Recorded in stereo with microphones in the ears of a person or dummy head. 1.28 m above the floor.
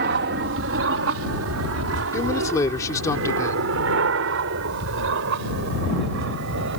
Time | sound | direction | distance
0.0 | an aircraft | 55° right (ahead or behind) | ?
2.1 | a man speaking | 15° left (ahead or behind) | ?